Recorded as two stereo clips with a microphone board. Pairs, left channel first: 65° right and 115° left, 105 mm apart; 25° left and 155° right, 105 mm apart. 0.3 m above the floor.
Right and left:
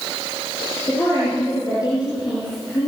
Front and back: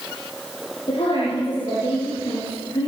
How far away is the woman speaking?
About 8.5 m.